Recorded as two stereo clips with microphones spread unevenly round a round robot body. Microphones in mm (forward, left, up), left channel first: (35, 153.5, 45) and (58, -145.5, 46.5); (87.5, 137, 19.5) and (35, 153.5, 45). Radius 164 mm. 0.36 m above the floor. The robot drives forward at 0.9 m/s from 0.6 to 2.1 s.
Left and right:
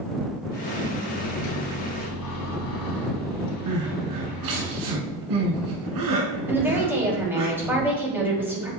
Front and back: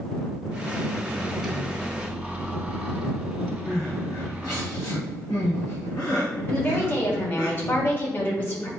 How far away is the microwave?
About 3.5 m.